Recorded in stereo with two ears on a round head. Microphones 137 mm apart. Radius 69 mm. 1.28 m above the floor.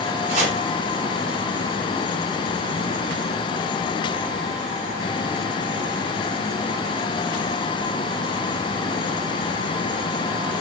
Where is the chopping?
55° right (ahead or behind), 3.5 m.